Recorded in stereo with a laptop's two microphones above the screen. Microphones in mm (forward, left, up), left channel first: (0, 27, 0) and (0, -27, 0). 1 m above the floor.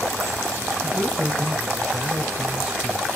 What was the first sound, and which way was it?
A man speaking, 5° right (ahead or behind).